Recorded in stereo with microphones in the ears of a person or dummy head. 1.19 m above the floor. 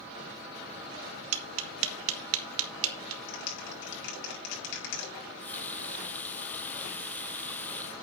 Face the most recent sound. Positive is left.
turn(degrees=10)  # may be behind; listen again after turning